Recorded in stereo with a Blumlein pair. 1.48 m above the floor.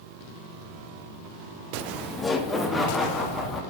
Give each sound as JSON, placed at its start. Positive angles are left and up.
{"t": 1.8, "sound": "laughter", "azimuth_deg": 10, "distance_m": 1.2}